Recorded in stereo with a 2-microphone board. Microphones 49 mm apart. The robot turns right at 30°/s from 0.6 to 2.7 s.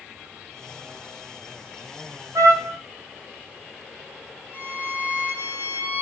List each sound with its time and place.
2.4 s a trumpet: 80° right, 2 m
4.5 s a violin: 40° right (ahead or behind), 5 m